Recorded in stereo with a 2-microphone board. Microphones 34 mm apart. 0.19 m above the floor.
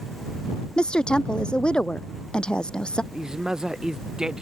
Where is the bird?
I don't hear a bird.